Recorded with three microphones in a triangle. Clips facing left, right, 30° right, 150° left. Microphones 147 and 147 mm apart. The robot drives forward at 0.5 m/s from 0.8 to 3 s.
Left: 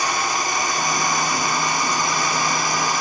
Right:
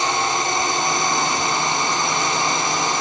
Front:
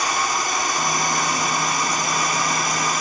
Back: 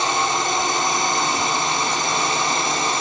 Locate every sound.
0.0 s a drone: 150° right